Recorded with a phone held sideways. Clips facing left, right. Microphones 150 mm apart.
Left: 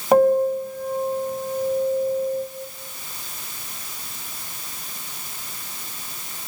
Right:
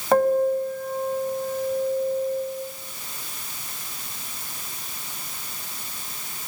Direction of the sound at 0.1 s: 15° left (ahead or behind).